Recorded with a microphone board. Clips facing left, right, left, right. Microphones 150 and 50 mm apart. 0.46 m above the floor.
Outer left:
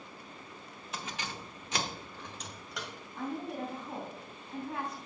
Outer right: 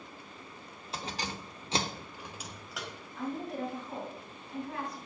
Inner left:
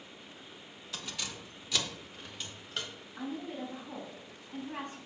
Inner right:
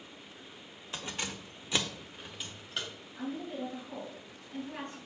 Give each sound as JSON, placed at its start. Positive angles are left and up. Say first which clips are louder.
{"t": 0.9, "sound": "keys jangling", "louder": "outer right 3 dB, inner right 3 dB", "side_deg": -30, "distance_m": 1.2}
{"t": 3.2, "sound": "a woman speaking", "louder": "outer right 1 dB, inner right 1 dB", "side_deg": 25, "distance_m": 3.0}